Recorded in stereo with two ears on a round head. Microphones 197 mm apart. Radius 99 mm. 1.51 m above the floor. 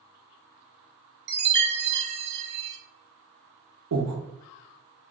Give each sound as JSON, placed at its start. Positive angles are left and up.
{"t": 1.3, "sound": "a chime", "side_deg": -50, "distance_m": 0.6}
{"t": 3.9, "sound": "breathing", "side_deg": -80, "distance_m": 0.7}